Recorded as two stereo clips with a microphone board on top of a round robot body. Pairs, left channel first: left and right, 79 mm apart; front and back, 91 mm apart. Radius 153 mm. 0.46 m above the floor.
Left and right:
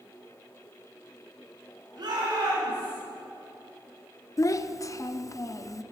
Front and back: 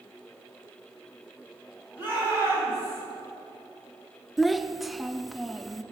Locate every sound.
2.0 s a shout: 110° right, 4 m; by 3.0 s 115° right, 5.5 m
4.4 s a child speaking: 90° left, 0.7 m